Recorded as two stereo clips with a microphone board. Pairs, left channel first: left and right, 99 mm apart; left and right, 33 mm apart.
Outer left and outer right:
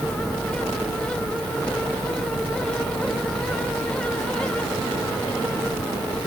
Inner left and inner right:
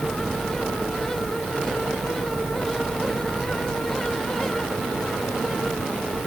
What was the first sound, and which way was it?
Only background noise.